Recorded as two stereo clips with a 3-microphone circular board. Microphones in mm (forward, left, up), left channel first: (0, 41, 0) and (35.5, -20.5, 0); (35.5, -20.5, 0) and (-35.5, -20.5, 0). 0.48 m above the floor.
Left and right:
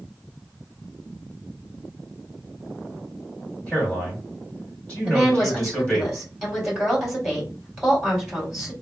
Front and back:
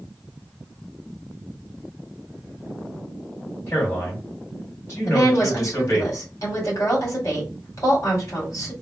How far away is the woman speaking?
About 2 m.